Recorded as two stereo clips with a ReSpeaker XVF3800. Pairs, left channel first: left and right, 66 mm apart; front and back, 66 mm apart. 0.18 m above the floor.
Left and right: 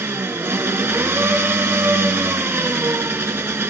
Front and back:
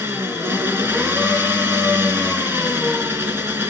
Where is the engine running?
130° right, 1.8 m.